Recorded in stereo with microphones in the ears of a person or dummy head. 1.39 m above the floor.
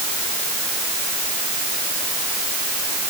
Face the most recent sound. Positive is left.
No sound to turn to.